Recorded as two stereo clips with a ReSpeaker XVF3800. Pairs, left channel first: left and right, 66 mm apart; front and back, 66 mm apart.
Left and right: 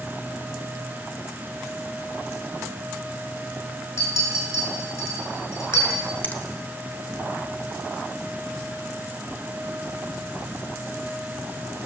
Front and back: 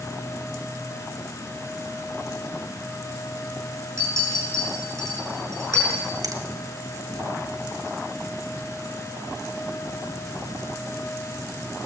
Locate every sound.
4.0 s a clink: 135° left, 6 m
6.2 s a finger snap: 155° left, 1.0 m